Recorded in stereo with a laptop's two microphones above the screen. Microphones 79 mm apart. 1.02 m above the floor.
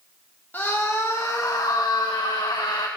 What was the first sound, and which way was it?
A scream, 25° left (ahead or behind).